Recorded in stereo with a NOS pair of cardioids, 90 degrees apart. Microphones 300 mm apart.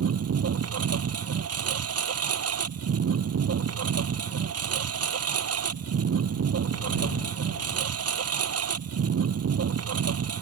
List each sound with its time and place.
0.0 s a lawn mower: 55° right